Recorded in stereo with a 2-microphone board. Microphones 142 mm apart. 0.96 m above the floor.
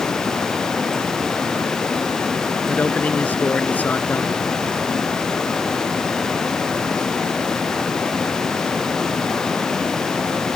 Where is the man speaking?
10° left (ahead or behind).